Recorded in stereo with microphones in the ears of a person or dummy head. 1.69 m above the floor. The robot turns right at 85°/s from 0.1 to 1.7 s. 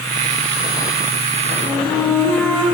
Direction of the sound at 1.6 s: Centre (ahead or behind).